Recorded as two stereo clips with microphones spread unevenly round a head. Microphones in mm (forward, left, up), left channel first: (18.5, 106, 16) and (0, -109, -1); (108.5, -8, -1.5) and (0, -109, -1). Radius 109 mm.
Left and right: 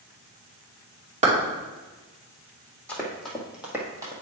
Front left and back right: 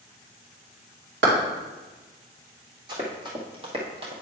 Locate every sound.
1.2 s a clap: 155° right, 2.5 m
2.9 s running footsteps: 165° left, 1.7 m; by 4.1 s 165° right, 1.4 m